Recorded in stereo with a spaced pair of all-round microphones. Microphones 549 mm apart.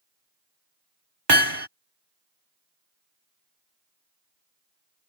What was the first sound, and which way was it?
Hammering, 45° right (ahead or behind).